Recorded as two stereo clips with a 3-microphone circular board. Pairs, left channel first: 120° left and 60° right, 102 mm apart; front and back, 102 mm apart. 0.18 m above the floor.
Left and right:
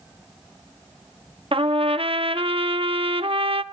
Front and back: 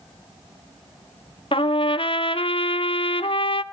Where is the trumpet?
30° right, 0.8 m.